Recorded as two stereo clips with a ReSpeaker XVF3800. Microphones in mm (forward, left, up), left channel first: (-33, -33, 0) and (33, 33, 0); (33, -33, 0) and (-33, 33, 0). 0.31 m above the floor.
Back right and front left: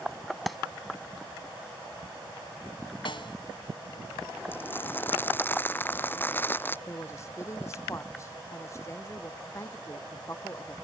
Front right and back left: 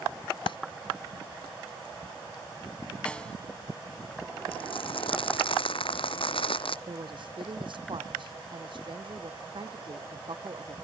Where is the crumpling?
65° right.